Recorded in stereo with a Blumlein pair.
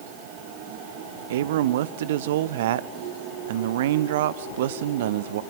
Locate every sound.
1.3 s a man speaking: 55° right, 0.9 m